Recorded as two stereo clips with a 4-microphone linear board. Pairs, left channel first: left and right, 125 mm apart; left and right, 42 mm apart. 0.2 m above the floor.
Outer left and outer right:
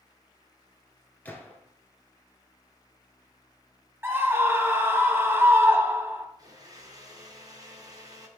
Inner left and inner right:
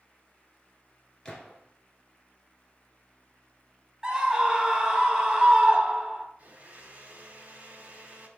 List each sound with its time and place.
1.2 s a gunshot: 15° left (ahead or behind), 1.5 m
4.0 s a scream: 20° right (ahead or behind), 1.0 m
6.4 s a blender: 30° right (ahead or behind), 1.7 m